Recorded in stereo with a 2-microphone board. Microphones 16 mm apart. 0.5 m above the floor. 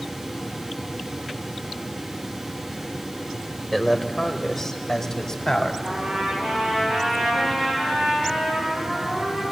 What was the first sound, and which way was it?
A man speaking, centre (ahead or behind).